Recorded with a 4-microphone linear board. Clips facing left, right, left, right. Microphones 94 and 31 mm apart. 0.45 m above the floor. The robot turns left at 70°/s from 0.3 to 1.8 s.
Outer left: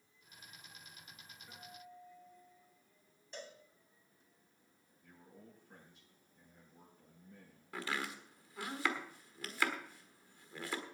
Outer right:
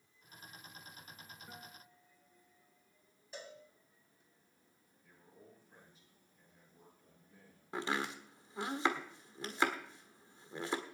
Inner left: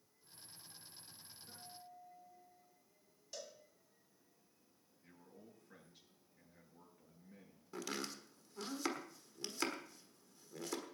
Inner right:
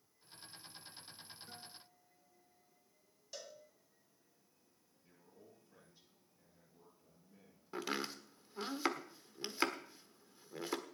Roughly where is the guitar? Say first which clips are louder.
Outer left 1 dB, even; right.